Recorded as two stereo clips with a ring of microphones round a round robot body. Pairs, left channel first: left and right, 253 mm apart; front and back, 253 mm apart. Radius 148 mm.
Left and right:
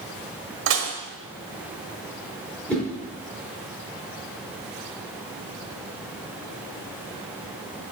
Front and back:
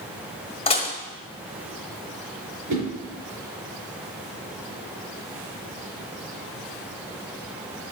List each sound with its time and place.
0.7 s dishes clattering: 65° right, 1.2 m
2.7 s a whoosh: 175° left, 4.5 m